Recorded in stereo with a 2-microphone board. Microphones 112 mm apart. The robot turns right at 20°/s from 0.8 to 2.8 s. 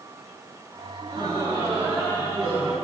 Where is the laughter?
45° right, 9.5 m; by 2.8 s 10° right, 9.5 m.